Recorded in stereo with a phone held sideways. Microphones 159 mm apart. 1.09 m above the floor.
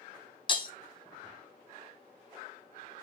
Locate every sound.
0.5 s breaking glass: 30° left (ahead or behind), 0.7 m